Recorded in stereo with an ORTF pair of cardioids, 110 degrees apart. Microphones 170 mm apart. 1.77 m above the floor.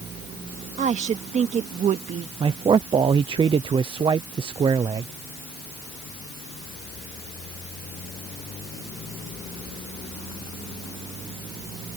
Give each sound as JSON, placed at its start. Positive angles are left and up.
{"t": 0.8, "sound": "a woman speaking", "azimuth_deg": -45}
{"t": 2.4, "sound": "a man speaking", "azimuth_deg": -30}